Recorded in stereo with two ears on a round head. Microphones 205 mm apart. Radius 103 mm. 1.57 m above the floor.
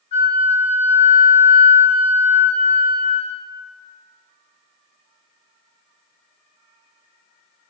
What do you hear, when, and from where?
0.1 s a flute: 30° left (ahead or behind), 0.5 m